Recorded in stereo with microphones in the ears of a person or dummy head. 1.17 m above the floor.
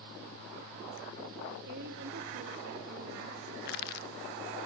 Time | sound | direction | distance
1.7 | a woman speaking | 60° right (ahead or behind) | 2.5 m
3.6 | crushing | 60° left (ahead or behind) | 0.8 m